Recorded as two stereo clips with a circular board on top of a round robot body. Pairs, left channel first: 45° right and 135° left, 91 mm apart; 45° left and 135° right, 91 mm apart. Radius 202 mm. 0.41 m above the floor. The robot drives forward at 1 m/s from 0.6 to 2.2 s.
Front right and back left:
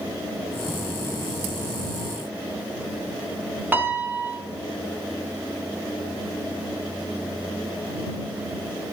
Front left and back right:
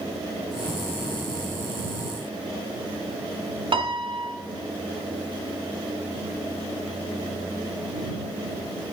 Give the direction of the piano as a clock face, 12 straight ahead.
5 o'clock.